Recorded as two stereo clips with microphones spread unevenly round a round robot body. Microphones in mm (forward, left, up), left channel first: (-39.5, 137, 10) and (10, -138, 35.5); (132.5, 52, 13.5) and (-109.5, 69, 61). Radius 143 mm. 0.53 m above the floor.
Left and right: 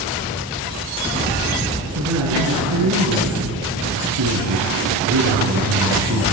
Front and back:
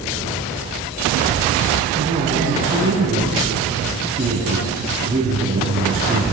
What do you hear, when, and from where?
1.9 s a man speaking: 115° right, 5 m